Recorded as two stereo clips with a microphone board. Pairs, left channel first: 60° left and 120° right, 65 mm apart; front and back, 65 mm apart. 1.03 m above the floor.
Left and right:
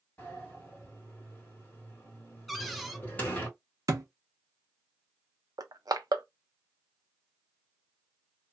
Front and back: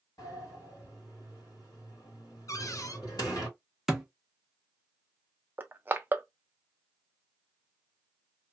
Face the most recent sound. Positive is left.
turn(degrees=-120)